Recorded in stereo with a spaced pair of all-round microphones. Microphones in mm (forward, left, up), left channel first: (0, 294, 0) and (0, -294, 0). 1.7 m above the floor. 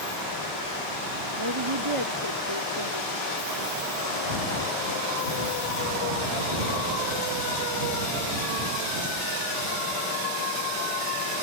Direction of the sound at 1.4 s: 45° right (ahead or behind).